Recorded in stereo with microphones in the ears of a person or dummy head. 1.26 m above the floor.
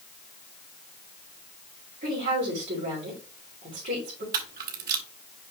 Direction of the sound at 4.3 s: 50° right (ahead or behind).